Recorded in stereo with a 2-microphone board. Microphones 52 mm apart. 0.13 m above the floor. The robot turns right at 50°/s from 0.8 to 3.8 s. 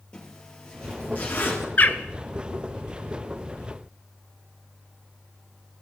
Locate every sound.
0.1 s a zipper: 15° left (ahead or behind), 2.5 m; by 1.7 s 50° left (ahead or behind), 2.5 m
1.8 s a bird: 40° left (ahead or behind), 0.5 m; by 2.0 s 30° left (ahead or behind), 0.5 m